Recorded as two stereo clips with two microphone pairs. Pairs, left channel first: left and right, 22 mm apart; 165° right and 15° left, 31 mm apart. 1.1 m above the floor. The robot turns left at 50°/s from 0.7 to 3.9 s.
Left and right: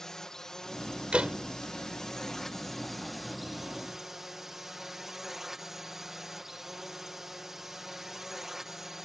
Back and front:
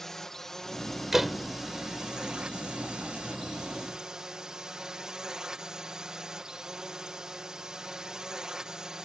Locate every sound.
0.0 s a drone: 125° left; by 9.1 s 35° right
1.1 s a door slam: 65° right; by 1.4 s 80° right